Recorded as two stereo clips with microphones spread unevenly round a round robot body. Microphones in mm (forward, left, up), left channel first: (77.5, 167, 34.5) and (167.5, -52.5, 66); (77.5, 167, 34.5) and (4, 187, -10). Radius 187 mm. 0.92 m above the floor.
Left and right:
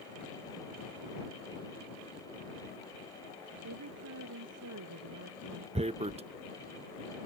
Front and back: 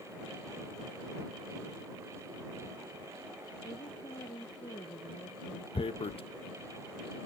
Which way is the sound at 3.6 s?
60° right.